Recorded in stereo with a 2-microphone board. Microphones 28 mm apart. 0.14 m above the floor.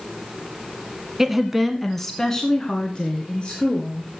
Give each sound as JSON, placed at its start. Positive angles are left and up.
{"t": 1.2, "sound": "a woman speaking", "side_deg": -15, "distance_m": 1.3}